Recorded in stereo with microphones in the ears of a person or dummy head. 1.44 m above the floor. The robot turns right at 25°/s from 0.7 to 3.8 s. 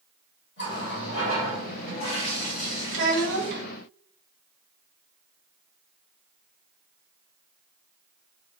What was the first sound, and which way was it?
A running tap, 85° left.